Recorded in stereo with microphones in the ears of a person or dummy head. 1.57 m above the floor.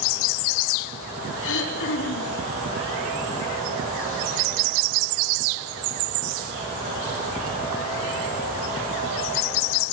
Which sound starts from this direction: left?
Throat clearing, at 1.4 s.